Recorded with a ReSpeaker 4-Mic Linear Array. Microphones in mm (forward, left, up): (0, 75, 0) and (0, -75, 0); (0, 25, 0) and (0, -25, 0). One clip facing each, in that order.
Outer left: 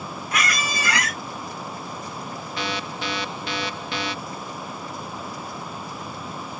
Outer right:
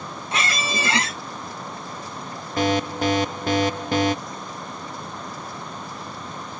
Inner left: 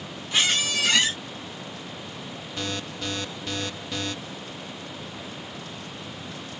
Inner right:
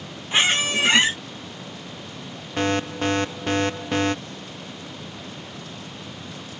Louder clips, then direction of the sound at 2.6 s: Outer right 10 dB, inner right 10 dB; 45° right (ahead or behind).